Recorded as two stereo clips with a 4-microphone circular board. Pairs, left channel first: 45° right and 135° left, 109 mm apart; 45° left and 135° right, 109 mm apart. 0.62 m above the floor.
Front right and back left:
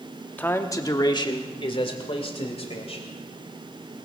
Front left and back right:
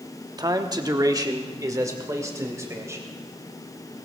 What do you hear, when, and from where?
0.4 s a man speaking: 110° right, 1.0 m; by 3.0 s 70° right, 3 m